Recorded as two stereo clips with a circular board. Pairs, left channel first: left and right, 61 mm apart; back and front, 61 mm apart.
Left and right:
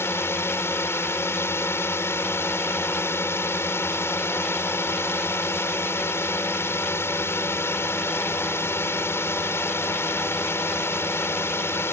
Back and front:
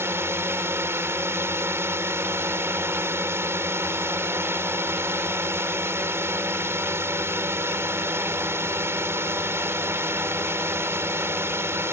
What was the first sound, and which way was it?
A drone, 45° left.